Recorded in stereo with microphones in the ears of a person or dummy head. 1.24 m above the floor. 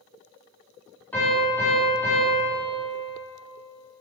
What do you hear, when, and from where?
1.1 s a piano: 5° left (ahead or behind), 4.5 m